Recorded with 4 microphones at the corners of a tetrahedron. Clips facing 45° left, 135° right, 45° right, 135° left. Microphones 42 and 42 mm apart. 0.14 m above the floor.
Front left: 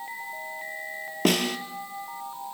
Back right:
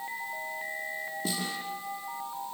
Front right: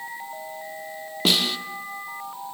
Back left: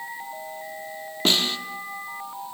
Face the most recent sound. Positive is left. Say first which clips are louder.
# front left 12 dB, even
turn(degrees=35)